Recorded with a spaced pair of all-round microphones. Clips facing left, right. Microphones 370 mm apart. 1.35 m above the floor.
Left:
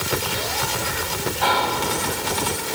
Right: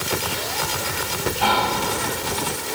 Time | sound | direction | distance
1.4 | whispering | 50° right (ahead or behind) | 1.4 m